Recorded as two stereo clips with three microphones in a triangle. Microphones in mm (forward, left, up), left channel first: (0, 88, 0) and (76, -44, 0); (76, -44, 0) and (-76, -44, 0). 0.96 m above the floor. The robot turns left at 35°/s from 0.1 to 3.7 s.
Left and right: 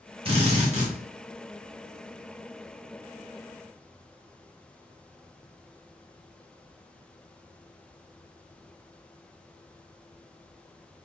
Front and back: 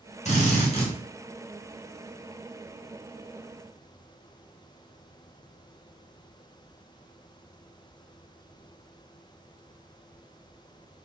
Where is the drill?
20° right, 1.3 m; by 0.9 s 40° right, 1.3 m.